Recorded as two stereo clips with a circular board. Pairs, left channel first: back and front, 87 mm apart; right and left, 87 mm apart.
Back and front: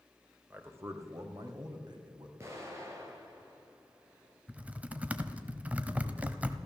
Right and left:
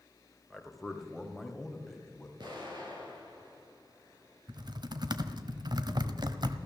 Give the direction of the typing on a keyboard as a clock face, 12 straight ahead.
10 o'clock.